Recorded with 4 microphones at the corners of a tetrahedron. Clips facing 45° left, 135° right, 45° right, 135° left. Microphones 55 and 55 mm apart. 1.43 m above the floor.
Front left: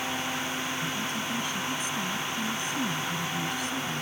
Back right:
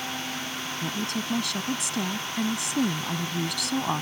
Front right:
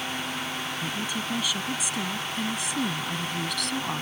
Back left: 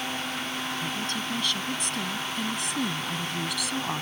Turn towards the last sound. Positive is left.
turn(degrees=-140)